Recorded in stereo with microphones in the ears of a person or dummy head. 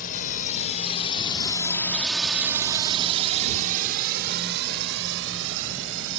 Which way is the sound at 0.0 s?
50° left (ahead or behind).